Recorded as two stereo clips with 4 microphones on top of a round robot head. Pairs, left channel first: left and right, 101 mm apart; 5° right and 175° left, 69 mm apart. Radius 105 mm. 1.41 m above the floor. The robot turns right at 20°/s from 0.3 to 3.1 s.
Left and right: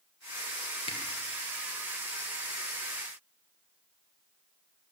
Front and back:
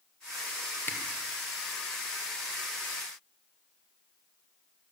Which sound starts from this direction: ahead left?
A camera shutter, at 0.9 s.